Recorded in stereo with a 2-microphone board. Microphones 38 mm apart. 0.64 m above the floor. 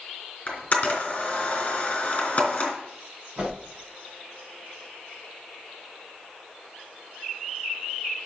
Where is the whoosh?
20° right (ahead or behind), 4.5 m.